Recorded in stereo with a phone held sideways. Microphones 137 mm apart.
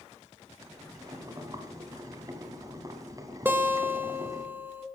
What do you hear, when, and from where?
0.6 s boiling: 30° right (ahead or behind), 1.5 m
3.5 s a guitar: 15° right (ahead or behind), 0.8 m